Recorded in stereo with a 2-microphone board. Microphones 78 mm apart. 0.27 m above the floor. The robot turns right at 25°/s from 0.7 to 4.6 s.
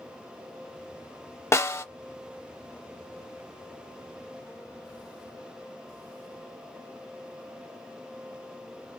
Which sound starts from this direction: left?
A snare drum, at 1.5 s.